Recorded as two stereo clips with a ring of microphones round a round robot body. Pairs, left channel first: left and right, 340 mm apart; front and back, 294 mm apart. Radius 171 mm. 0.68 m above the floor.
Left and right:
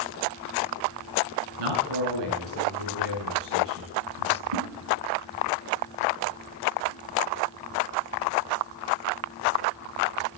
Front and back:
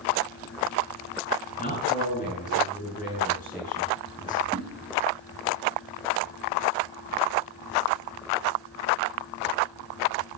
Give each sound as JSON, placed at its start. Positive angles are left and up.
{"t": 1.6, "sound": "a man speaking", "azimuth_deg": -70, "distance_m": 8.0}
{"t": 4.5, "sound": "a whoosh", "azimuth_deg": -80, "distance_m": 8.5}